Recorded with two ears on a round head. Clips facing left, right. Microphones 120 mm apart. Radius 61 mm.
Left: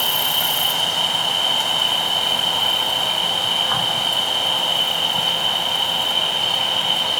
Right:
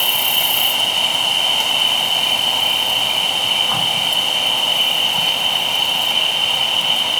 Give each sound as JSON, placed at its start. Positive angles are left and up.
{"t": 0.0, "sound": "an insect", "side_deg": -15, "distance_m": 0.9}